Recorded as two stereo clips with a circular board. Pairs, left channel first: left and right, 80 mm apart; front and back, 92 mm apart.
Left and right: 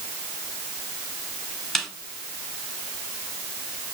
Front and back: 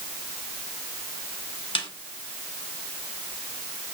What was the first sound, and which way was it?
A snare drum, straight ahead.